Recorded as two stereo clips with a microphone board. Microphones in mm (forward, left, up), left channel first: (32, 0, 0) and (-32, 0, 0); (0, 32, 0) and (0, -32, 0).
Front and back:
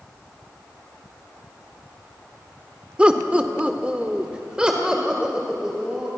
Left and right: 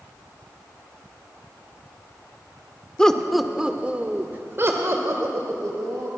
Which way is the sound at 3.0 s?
140° left.